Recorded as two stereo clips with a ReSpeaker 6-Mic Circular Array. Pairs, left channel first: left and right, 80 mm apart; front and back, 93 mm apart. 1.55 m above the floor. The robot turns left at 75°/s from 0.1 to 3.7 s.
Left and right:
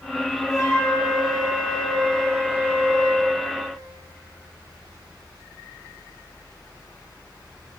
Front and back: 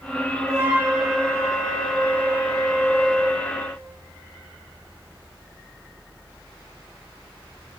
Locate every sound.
0.5 s a flute: 135° left, 1.4 m; by 3.4 s 80° right, 1.4 m